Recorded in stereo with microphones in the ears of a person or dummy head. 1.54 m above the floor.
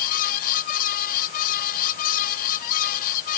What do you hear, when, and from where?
0.0 s a fan: 45° left (ahead or behind)